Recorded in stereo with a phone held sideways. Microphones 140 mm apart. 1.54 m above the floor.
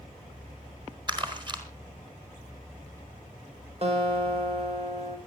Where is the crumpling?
35° right (ahead or behind), 4.5 m.